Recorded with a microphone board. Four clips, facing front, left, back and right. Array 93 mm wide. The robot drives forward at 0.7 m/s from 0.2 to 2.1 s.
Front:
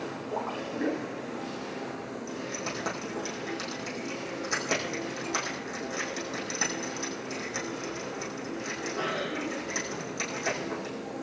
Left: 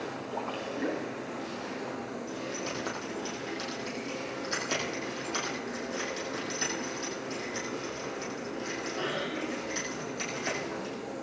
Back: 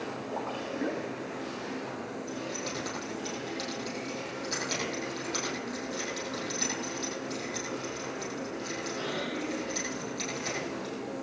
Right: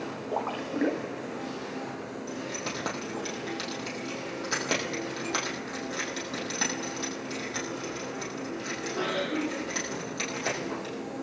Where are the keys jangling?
70° right, 9 m.